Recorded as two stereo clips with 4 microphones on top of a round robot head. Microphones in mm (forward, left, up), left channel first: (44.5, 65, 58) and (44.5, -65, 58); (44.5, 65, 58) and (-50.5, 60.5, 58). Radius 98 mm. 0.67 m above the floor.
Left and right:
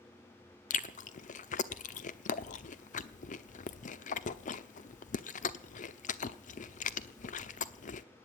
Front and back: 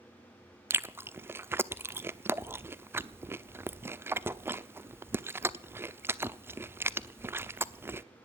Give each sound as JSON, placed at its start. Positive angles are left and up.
{"t": 0.7, "sound": "chewing", "azimuth_deg": 115, "distance_m": 1.0}